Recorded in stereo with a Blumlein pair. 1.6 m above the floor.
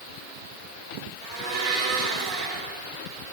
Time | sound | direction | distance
1.2 | a blender | 50° right | 4.5 m